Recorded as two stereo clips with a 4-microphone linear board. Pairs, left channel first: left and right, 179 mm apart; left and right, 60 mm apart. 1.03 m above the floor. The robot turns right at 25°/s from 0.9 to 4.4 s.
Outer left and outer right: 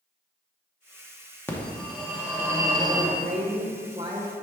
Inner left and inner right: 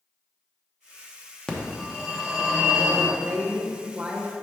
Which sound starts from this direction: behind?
A phone ringing, at 1.5 s.